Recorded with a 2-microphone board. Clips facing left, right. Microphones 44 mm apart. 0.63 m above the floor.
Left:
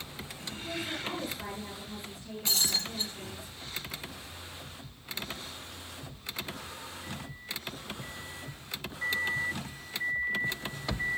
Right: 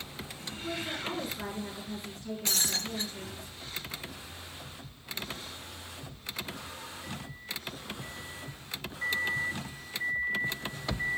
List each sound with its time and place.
0.6 s a woman speaking: 60° right (ahead or behind), 8.5 m
2.5 s breaking glass: 65° right (ahead or behind), 3.5 m